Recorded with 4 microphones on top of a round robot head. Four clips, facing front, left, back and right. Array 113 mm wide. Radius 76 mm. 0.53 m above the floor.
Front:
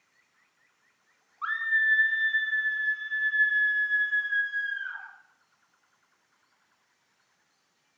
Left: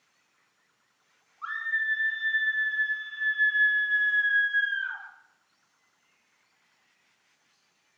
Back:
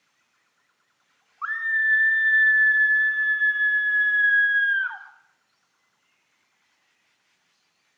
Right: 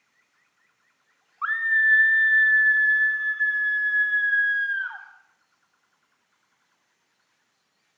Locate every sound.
1.4 s a scream: 115° right, 3 m; by 5.0 s 150° right, 5 m